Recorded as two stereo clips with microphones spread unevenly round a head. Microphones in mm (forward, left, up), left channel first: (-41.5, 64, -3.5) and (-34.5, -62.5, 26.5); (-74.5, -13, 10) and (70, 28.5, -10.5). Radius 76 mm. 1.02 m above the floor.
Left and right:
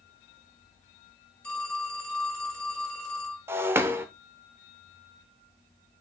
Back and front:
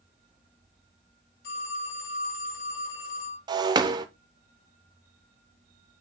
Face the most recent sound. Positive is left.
turn(degrees=-45)